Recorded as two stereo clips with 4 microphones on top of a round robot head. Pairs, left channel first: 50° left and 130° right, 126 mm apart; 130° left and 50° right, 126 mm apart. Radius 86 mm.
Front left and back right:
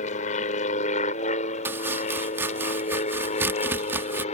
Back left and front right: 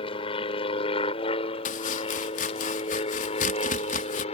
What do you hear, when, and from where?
0.0 s an aircraft: 80° left; by 4.3 s 90° left
1.6 s chopping: 155° left